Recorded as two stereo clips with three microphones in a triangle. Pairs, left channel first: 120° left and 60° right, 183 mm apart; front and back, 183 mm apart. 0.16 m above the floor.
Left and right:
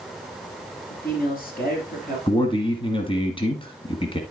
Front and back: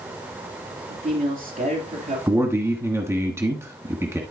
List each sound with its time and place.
0.9 s a man speaking: 145° left, 3.5 m
2.3 s a man speaking: 120° left, 1.2 m